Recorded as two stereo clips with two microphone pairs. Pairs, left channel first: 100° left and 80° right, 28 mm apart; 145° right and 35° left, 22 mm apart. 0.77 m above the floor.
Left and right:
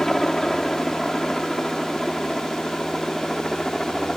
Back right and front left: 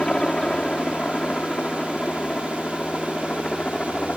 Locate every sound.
0.0 s a helicopter: 170° left; by 4.2 s straight behind